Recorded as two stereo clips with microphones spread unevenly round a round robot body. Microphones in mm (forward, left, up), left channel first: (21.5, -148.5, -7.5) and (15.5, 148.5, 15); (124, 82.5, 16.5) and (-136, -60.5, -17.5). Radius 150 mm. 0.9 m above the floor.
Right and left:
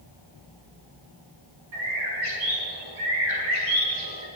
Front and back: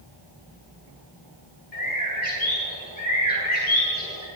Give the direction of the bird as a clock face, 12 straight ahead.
9 o'clock.